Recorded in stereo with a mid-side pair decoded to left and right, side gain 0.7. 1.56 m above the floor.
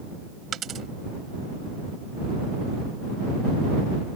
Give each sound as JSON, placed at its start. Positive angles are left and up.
{"t": 0.5, "sound": "a dropped coin", "azimuth_deg": -40}